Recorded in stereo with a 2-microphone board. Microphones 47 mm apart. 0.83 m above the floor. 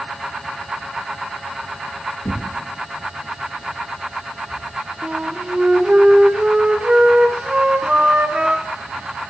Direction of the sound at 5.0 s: 25° right (ahead or behind).